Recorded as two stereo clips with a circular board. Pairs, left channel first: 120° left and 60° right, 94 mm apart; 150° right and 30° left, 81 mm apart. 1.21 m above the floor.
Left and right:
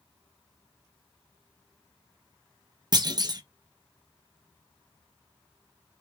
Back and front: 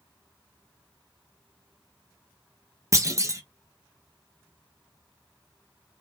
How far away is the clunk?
About 0.7 m.